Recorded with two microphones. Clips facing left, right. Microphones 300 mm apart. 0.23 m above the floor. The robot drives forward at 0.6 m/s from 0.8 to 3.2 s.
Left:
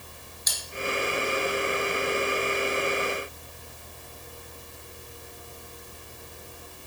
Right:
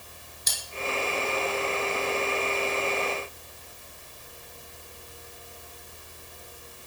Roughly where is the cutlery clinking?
Right.